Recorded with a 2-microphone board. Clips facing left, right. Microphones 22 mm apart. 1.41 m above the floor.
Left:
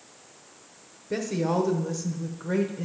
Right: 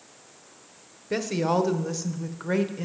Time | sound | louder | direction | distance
1.1 | a woman speaking | right 2 dB | 35° right (ahead or behind) | 0.9 m